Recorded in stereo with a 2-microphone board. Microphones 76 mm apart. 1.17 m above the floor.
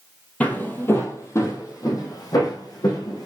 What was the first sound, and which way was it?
Footsteps, 20° left (ahead or behind).